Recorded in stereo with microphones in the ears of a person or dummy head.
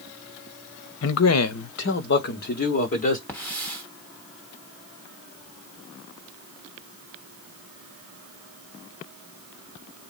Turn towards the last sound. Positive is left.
turn(degrees=10)  # may be behind; listen again after turning